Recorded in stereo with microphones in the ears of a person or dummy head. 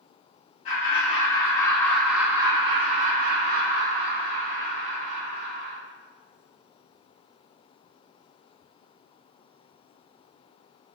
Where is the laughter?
50° left (ahead or behind), 1.0 m; by 5.8 s 75° right (ahead or behind), 2 m.